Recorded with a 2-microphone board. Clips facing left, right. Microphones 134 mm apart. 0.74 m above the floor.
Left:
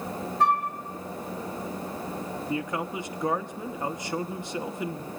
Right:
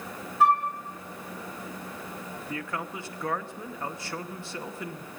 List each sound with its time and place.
0.4 s a flute: 5° right (ahead or behind), 3 m
2.5 s a man speaking: 20° left (ahead or behind), 0.7 m